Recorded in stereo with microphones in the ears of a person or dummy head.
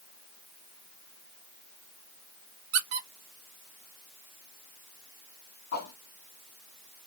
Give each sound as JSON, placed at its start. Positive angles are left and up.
{"t": 2.7, "sound": "a squeak", "side_deg": -60, "distance_m": 0.8}
{"t": 5.7, "sound": "a whoosh", "side_deg": 50, "distance_m": 1.9}